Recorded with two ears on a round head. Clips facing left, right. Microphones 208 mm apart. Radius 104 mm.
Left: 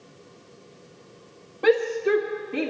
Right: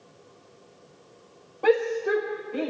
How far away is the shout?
About 1.7 m.